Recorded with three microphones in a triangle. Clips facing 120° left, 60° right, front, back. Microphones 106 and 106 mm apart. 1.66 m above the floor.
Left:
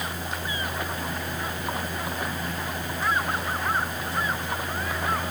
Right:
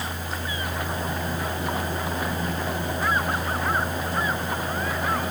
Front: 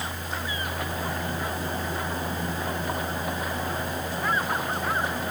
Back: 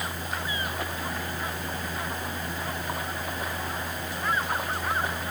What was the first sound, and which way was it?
Only background noise.